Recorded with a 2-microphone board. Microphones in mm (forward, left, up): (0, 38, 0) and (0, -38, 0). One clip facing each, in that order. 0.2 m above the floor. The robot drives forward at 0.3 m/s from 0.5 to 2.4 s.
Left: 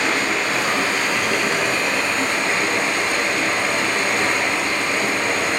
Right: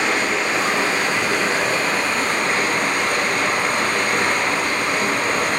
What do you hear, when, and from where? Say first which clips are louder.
0.0 s running water: right 1 dB; 35° right (ahead or behind), 1.1 m; by 5.6 s 55° right (ahead or behind), 0.8 m